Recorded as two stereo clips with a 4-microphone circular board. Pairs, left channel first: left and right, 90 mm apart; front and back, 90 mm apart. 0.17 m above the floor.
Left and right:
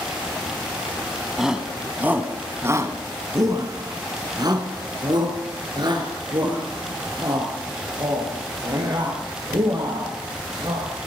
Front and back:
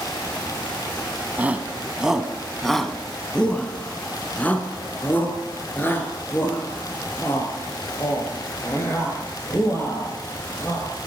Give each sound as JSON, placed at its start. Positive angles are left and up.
{"t": 1.4, "sound": "a shout", "azimuth_deg": -165, "distance_m": 1.1}